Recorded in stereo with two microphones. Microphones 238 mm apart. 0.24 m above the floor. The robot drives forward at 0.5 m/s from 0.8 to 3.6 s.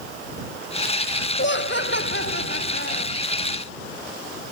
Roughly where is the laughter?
Left.